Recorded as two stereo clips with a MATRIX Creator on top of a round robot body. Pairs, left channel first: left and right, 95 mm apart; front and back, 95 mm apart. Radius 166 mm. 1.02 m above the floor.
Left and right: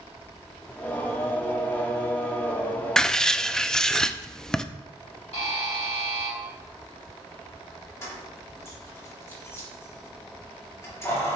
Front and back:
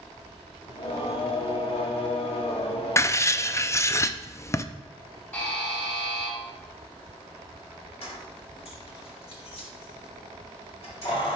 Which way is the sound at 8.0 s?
25° left.